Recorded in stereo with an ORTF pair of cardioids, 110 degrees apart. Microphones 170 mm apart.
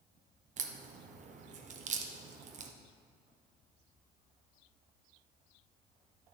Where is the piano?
No piano in this recording.